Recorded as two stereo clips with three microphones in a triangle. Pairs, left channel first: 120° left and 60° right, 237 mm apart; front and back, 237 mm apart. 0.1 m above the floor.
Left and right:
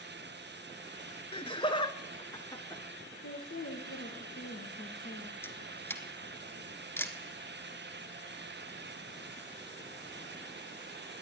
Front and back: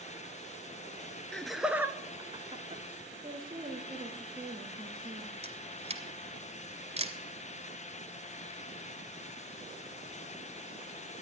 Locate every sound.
1.3 s laughter: 80° left, 1.1 m; by 2.8 s 175° right, 1.2 m
3.2 s a woman speaking: 110° left, 3 m
5.4 s a camera shutter: 170° right, 1.0 m